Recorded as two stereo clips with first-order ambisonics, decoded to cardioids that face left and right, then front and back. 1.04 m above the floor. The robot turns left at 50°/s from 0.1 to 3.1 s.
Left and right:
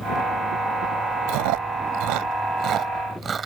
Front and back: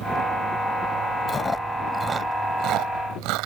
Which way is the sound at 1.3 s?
70° right.